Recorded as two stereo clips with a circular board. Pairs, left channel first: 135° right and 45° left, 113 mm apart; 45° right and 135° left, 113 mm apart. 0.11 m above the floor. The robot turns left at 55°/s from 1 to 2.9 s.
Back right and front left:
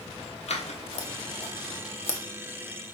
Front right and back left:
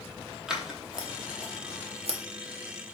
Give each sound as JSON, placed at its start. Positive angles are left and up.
{"t": 0.5, "sound": "scissors", "azimuth_deg": -140, "distance_m": 0.7}